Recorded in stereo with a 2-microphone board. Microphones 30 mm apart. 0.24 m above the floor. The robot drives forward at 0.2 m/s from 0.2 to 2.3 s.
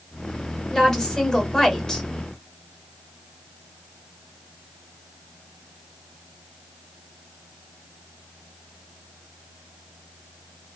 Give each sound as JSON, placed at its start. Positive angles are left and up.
{"t": 0.7, "sound": "a woman speaking", "side_deg": 15, "distance_m": 1.2}